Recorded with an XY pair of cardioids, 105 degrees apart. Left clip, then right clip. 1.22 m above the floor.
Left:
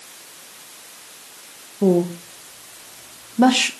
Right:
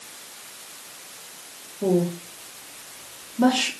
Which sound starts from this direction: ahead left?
A woman speaking, at 1.8 s.